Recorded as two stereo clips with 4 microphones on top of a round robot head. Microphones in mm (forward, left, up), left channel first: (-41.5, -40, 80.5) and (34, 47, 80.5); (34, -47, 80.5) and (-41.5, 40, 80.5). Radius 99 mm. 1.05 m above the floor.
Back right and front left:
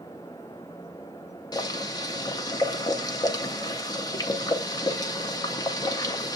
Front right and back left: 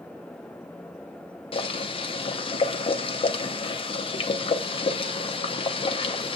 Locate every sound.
1.5 s boiling: 80° right, 0.8 m